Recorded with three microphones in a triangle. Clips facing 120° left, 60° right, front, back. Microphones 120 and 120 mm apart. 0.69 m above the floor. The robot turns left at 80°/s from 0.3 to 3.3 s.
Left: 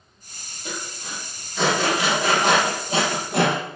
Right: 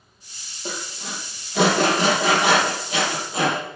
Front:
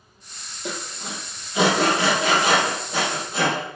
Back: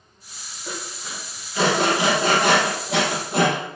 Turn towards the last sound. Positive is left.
turn(degrees=150)